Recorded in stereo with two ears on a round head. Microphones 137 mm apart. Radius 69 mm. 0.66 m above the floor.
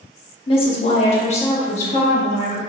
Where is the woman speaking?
35° left (ahead or behind), 0.9 m; by 2.6 s 40° left (ahead or behind), 1.2 m.